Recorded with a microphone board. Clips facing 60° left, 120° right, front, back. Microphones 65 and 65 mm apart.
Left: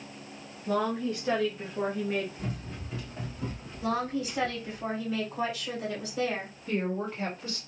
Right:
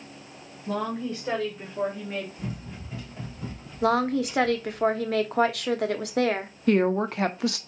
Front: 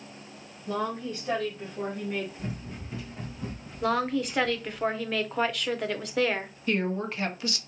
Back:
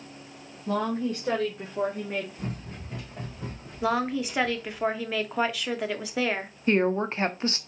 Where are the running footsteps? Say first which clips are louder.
Right 1 dB, even; 155° left, 3 m; by 4.8 s 125° left, 2.5 m.